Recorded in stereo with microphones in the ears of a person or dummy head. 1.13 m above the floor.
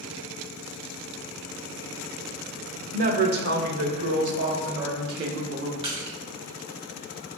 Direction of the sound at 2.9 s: 35° right (ahead or behind).